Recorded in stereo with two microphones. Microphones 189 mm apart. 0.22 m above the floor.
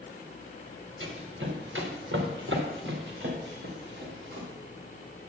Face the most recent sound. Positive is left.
turn(degrees=-65)  # may be behind; listen again after turning